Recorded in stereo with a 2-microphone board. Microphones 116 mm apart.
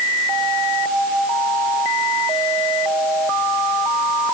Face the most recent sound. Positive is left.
No sound to turn to.